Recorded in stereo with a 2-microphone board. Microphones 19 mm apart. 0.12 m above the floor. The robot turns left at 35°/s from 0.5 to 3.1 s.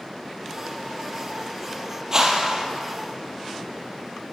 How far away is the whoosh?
About 3 m.